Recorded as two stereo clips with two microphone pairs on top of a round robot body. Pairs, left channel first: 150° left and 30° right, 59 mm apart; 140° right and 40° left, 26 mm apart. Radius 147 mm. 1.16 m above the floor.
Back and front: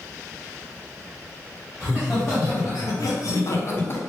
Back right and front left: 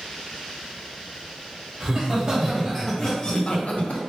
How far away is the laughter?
About 1.0 m.